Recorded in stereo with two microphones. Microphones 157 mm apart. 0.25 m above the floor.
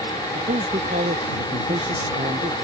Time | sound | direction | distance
0.3 | a man speaking | 55° right (ahead or behind) | ?